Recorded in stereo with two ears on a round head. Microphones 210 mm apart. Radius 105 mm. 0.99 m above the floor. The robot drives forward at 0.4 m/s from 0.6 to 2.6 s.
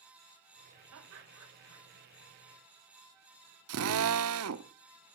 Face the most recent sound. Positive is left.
turn(degrees=-65)  # may be behind; listen again after turning